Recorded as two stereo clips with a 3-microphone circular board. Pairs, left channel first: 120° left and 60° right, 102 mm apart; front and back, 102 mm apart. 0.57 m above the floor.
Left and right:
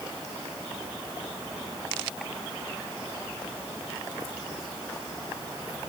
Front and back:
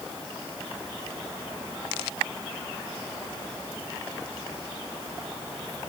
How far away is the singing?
I don't hear singing.